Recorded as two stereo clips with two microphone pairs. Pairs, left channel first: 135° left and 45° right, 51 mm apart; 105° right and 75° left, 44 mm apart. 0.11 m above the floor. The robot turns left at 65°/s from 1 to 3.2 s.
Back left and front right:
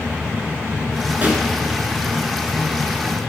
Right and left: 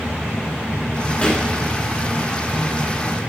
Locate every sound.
1.2 s a pop: 65° right, 1.1 m; by 1.4 s 80° right, 1.1 m